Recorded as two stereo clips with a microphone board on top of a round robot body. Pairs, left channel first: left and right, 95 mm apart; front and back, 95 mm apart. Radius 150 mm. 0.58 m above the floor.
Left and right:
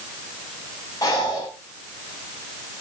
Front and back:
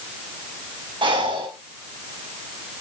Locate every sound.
1.0 s breathing: 145° left, 5.5 m